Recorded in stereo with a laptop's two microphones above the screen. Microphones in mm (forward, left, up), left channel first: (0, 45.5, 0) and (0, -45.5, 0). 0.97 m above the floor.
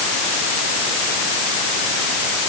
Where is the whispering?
No whispering in this recording.